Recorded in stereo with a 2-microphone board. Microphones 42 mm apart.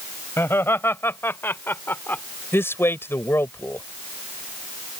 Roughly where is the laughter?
Left.